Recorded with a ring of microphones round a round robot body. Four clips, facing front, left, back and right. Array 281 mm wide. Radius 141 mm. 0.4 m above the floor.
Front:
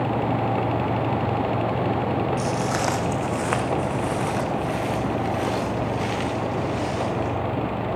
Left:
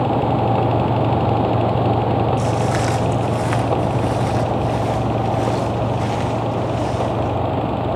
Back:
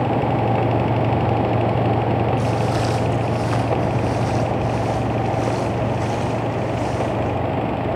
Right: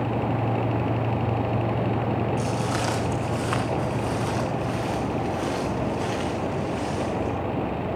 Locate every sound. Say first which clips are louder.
2.4 s footsteps: left 7 dB, back 3 dB; 20° left, 2.0 m; by 7.3 s 5° left, 5.5 m